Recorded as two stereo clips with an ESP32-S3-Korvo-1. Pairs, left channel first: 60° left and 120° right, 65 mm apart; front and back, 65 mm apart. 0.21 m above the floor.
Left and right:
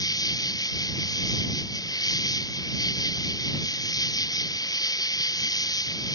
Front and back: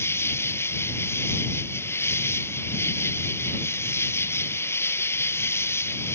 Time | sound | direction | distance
0.0 | an insect | 50° left | ?